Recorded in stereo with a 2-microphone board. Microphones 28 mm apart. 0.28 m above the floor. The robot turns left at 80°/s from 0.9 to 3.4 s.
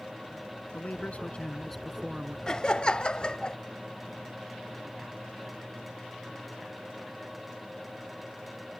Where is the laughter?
135° left; by 3.6 s 60° left.